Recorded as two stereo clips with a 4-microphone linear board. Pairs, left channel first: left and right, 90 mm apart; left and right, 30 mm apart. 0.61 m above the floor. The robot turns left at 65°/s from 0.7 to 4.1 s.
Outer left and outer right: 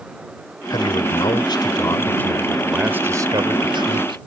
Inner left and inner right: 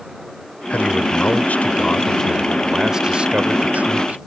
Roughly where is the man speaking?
Behind left.